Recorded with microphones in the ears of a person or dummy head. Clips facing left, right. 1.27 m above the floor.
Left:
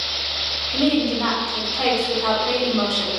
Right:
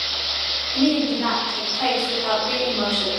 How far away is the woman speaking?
About 1.3 m.